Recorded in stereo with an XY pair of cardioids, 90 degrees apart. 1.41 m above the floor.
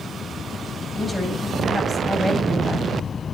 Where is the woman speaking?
5° left, 8.5 m.